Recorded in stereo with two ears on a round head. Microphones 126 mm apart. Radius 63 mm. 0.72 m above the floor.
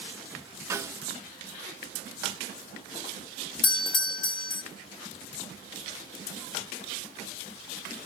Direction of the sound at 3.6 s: 35° left (ahead or behind).